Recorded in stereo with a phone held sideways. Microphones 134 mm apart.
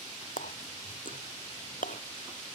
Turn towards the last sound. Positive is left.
turn(degrees=90)